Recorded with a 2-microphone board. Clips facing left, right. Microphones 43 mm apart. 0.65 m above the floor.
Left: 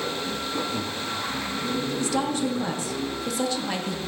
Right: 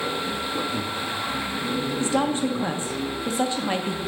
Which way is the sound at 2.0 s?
25° right (ahead or behind).